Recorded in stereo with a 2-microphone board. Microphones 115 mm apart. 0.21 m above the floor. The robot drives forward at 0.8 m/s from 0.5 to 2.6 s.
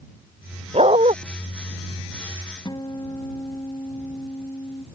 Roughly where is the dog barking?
Right.